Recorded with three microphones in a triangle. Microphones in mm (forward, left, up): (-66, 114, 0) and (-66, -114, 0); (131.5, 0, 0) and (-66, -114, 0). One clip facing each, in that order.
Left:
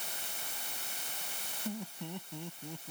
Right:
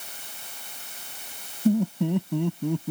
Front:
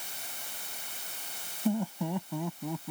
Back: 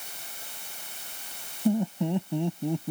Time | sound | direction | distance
1.6 | laughter | 80° right | ?